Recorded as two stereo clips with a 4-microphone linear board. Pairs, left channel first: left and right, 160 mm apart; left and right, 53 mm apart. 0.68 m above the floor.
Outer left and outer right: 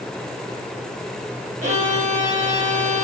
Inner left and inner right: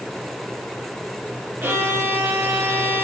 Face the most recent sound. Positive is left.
turn(degrees=-50)  # may be behind; listen again after turning